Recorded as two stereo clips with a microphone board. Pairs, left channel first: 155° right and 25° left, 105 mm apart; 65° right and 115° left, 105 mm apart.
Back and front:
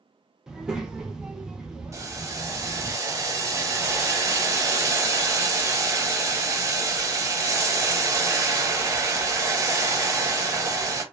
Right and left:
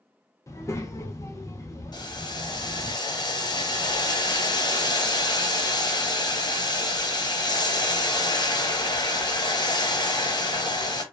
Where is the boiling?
30° right, 0.6 m.